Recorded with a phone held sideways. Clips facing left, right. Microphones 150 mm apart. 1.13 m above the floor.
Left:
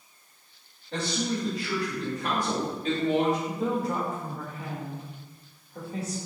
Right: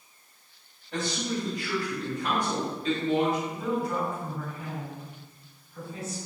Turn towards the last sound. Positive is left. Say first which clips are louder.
# left 1 dB
turn(degrees=70)  # may be behind; listen again after turning